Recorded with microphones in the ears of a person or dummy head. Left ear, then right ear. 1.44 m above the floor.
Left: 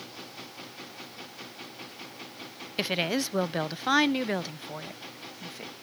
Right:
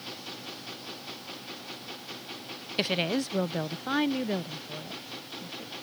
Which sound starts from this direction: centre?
A woman speaking, at 2.8 s.